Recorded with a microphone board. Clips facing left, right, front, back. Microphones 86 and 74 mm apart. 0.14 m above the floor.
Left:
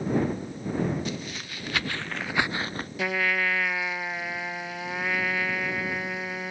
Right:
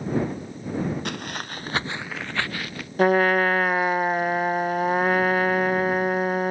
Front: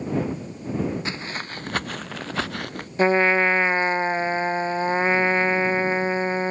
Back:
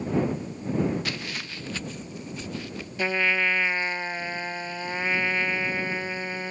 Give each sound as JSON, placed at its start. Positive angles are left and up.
{"t": 1.1, "sound": "footsteps", "azimuth_deg": -65}
{"t": 3.0, "sound": "a trumpet", "azimuth_deg": -50}